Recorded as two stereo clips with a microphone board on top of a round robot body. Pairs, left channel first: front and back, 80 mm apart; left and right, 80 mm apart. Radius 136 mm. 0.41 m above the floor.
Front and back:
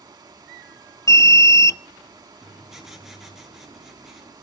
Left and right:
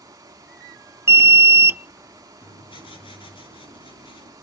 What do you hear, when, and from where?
0.0 s running water: 140° right, 1.1 m
1.1 s an alarm: 40° right, 0.6 m
2.4 s writing: 95° left, 4 m